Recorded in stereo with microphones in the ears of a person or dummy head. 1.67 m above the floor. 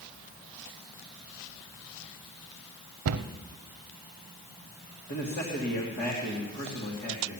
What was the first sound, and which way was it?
A cupboard door, 70° right (ahead or behind).